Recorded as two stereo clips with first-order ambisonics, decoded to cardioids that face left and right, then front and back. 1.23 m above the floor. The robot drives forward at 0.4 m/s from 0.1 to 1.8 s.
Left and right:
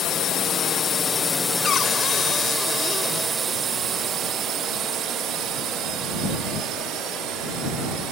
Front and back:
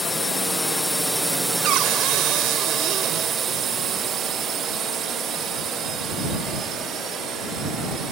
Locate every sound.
0.0 s a drone: 75° left; by 8.1 s 125° right
1.6 s a cupboard door: 150° left